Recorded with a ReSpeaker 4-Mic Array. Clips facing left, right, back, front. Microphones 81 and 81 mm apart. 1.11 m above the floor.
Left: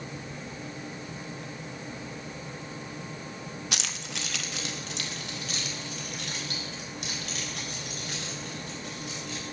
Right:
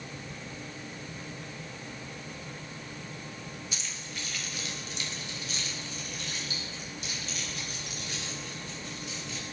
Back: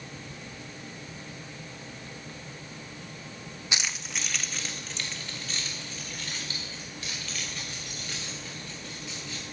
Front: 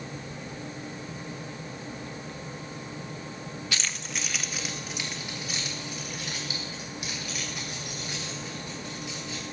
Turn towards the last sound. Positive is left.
turn(degrees=70)